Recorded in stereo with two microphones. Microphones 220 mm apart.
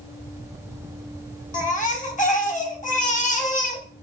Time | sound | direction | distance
1.5 | a baby crying | 35° left (ahead or behind) | 0.5 m